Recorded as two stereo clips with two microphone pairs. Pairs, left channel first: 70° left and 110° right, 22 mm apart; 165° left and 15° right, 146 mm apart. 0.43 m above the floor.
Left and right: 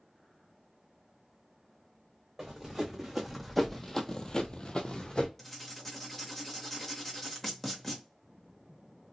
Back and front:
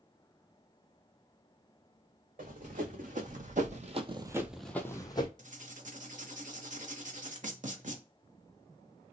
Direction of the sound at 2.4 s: 35° right.